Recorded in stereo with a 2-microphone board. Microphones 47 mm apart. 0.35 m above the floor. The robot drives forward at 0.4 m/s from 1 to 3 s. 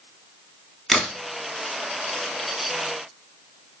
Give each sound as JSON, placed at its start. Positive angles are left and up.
{"t": 0.9, "sound": "a crack", "side_deg": 5, "distance_m": 0.8}